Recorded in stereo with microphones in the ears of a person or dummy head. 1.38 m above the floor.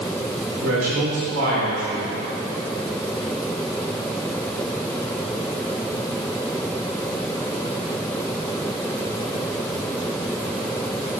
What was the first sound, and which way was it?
A man speaking, 85° right.